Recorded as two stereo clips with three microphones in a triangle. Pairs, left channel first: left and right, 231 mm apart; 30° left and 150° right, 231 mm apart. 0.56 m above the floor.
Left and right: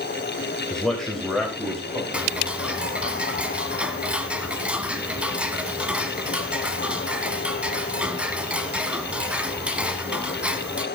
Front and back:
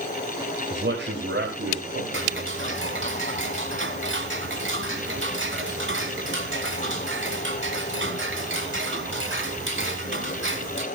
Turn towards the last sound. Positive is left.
turn(degrees=-175)